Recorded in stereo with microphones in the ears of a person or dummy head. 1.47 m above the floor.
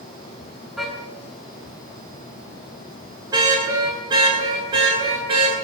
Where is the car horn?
5° right (ahead or behind), 7 m; by 5.5 s 35° right (ahead or behind), 10 m.